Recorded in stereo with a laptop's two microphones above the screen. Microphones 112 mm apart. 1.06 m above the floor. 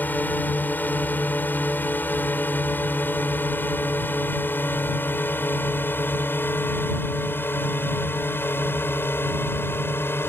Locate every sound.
0.0 s a drone: 15° left (ahead or behind); by 10.3 s 20° left (ahead or behind)